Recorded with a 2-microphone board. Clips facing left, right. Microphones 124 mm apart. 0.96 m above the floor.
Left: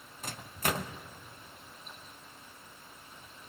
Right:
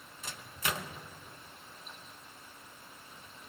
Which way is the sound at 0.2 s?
45° left (ahead or behind).